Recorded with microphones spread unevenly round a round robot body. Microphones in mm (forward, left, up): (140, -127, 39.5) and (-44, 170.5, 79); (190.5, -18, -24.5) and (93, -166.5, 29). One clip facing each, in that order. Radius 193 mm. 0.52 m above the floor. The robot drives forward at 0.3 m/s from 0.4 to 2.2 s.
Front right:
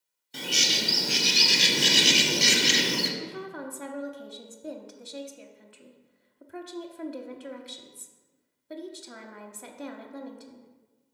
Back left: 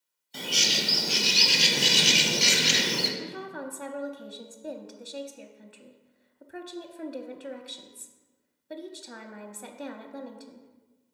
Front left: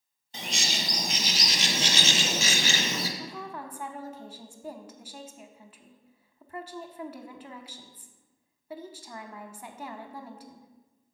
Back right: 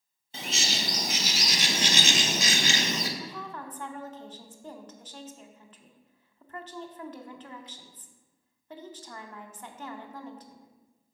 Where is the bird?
20° right, 1.5 m; by 3.1 s 40° right, 1.2 m.